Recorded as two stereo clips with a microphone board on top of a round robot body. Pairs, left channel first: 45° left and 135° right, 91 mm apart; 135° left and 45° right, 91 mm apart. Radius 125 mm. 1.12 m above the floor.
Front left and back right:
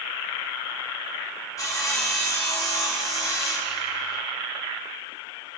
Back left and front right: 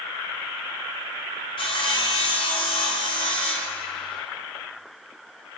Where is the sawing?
105° left, 0.9 m.